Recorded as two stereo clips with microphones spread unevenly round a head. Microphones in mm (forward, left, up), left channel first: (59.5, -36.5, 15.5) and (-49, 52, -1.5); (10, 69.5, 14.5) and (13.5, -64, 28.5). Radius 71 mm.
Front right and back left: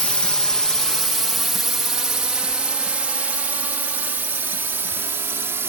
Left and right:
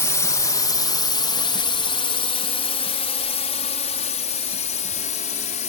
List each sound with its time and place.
0.0 s a drone: 45° left; by 5.7 s 70° left